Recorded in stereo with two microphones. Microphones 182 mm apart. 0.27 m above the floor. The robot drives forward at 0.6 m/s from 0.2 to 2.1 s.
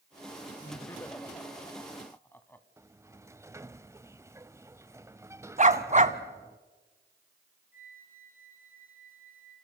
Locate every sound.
0.6 s laughter: 15° left (ahead or behind), 1.3 m; by 2.7 s 10° left (ahead or behind), 1.9 m
2.8 s a sliding door: 15° right (ahead or behind), 0.6 m
5.6 s a dog barking: 40° right (ahead or behind), 1.0 m
7.7 s a flute: 50° left (ahead or behind), 3.5 m